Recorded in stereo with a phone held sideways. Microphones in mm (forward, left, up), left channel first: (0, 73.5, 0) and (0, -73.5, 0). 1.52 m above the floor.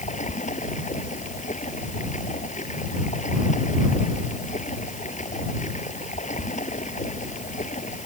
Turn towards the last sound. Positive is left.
turn(degrees=55)  # may be behind; listen again after turning